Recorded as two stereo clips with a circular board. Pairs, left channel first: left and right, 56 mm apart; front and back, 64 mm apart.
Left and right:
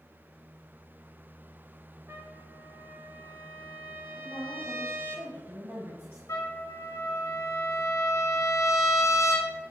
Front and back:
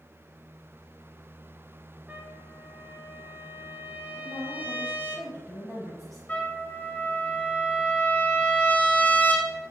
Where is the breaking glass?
I don't hear breaking glass.